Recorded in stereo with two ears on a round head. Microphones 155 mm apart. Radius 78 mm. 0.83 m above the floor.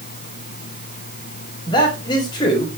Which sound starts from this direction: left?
A man speaking, at 1.7 s.